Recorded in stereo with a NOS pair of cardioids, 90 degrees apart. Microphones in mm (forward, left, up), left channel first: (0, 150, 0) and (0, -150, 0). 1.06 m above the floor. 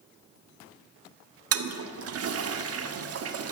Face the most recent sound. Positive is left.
turn(degrees=-50)